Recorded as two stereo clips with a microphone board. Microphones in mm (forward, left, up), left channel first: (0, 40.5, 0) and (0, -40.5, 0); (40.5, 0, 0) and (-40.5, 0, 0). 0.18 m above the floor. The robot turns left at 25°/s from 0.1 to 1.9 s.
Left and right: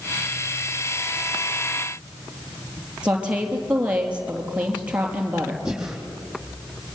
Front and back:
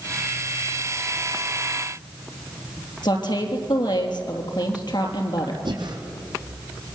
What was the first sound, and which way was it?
A woman speaking, 15° right.